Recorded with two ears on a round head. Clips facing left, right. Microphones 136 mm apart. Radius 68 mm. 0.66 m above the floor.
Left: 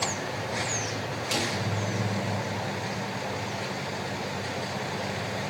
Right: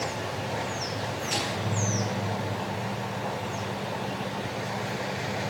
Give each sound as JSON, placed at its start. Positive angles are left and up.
{"t": 1.3, "sound": "a snare drum", "side_deg": 45, "distance_m": 8.0}